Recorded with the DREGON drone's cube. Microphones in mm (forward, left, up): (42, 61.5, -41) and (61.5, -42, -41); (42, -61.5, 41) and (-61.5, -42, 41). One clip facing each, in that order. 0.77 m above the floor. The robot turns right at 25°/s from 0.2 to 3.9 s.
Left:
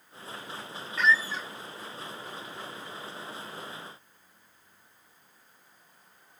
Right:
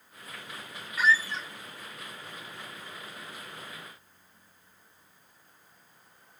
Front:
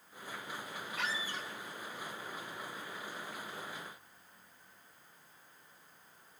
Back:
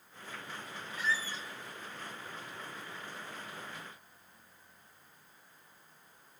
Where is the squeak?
5° left, 0.8 m; by 1.5 s 15° left, 0.8 m.